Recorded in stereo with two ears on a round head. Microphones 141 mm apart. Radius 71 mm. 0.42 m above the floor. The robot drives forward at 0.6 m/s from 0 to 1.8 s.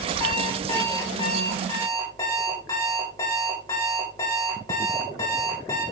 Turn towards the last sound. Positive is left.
turn(degrees=20)  # may be behind; listen again after turning